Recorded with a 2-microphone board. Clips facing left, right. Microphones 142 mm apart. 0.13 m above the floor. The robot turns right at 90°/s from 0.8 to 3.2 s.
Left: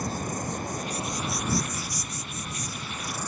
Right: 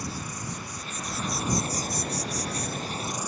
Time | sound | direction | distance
0.0 | an insect | 130° left | ?